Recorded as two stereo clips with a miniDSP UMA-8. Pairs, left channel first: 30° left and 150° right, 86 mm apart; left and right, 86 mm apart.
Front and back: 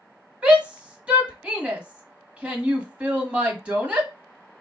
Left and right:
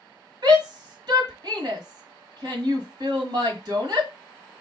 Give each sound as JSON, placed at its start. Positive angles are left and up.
{"t": 0.4, "sound": "a shout", "azimuth_deg": -75, "distance_m": 1.6}